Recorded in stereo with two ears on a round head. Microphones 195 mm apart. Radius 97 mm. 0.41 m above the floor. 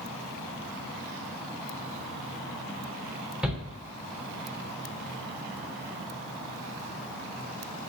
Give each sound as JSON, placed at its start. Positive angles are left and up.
{"t": 3.4, "sound": "a shout", "side_deg": -5, "distance_m": 0.7}